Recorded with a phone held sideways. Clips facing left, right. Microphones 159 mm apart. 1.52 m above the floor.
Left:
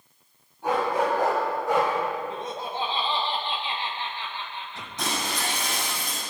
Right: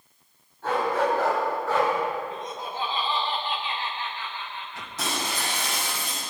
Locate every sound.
0.6 s a dog barking: 15° left (ahead or behind), 4.5 m
2.3 s laughter: 30° left (ahead or behind), 1.2 m
5.0 s breaking glass: 5° right (ahead or behind), 6.5 m